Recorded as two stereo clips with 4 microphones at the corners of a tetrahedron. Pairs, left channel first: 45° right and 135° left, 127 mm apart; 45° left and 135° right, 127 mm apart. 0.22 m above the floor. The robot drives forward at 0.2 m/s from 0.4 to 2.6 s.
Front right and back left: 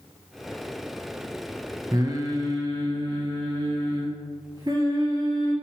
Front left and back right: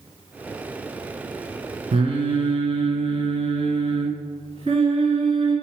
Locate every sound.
1.9 s singing: 170° right, 0.6 m